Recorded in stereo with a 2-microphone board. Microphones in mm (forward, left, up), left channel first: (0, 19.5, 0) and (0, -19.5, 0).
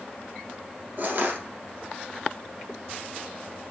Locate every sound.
1.0 s crushing: 50° right (ahead or behind), 1.9 m